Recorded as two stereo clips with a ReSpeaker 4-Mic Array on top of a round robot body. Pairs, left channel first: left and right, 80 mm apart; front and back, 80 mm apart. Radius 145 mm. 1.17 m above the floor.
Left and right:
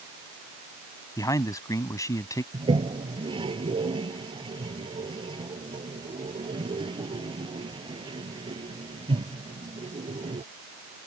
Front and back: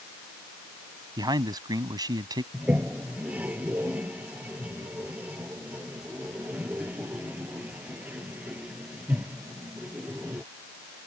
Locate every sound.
1.2 s a man speaking: 140° left
2.5 s a toilet flushing: 110° right